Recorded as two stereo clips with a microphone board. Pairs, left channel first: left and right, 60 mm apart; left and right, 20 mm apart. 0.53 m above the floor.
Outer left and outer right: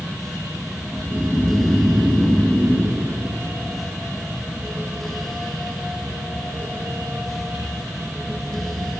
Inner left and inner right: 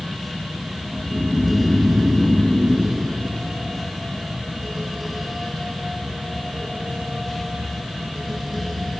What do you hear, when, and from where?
0.9 s snoring: 25° left (ahead or behind), 2.5 m